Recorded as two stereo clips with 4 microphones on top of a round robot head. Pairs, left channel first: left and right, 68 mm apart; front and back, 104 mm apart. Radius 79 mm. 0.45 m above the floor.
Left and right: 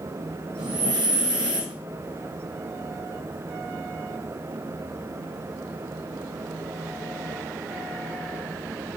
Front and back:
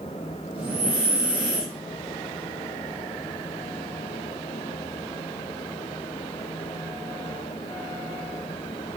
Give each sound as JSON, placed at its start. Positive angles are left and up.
{"t": 0.6, "sound": "breathing", "azimuth_deg": -100, "distance_m": 3.0}